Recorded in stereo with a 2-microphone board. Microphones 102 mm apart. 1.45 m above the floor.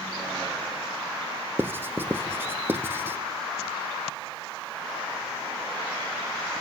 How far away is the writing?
About 0.6 m.